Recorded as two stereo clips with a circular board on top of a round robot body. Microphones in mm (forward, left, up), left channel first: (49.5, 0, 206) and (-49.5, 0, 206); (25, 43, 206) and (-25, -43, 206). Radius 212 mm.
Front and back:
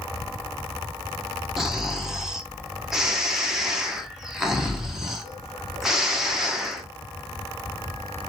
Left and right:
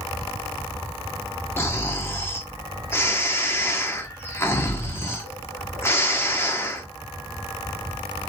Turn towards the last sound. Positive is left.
turn(degrees=100)